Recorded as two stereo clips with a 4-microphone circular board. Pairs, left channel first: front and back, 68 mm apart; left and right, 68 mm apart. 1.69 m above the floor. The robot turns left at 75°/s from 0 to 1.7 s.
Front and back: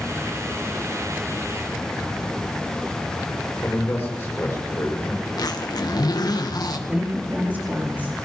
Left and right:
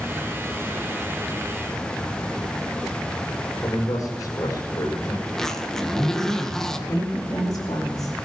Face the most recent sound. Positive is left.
turn(degrees=115)